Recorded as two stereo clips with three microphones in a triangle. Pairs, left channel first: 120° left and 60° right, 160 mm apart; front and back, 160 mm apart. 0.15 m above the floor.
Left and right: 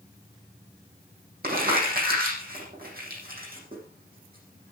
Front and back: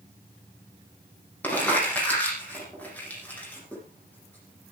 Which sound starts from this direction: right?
Crumpling, at 1.4 s.